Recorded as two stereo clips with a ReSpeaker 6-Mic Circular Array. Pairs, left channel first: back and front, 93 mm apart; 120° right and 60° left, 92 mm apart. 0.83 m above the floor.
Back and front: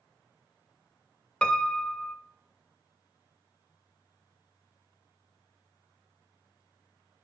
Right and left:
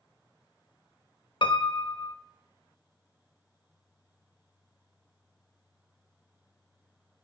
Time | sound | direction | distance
1.4 | a piano | 100° right | 0.9 m